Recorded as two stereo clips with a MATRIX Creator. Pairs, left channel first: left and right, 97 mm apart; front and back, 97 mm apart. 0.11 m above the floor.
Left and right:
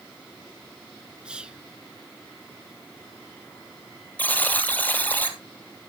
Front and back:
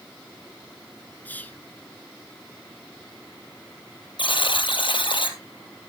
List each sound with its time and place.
1.2 s whispering: 30° right, 1.1 m
4.2 s a buzzer: 20° left, 1.8 m